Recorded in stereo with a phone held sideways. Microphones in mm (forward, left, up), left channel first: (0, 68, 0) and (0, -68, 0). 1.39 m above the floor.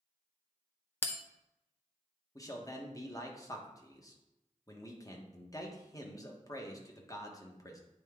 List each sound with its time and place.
1.0 s a bell: 15° left (ahead or behind), 0.6 m
2.4 s a man speaking: 25° left (ahead or behind), 1.1 m